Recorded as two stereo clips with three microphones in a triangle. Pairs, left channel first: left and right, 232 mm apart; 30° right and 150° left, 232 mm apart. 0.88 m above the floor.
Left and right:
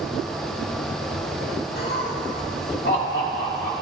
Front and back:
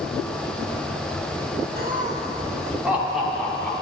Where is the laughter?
120° left, 1.4 m; by 3.7 s 55° left, 2.5 m.